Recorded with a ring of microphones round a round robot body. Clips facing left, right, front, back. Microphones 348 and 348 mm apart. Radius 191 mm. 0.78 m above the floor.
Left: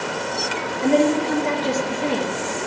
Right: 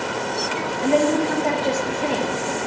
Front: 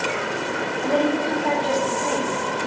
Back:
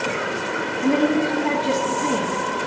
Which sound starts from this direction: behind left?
A woman speaking, at 0.8 s.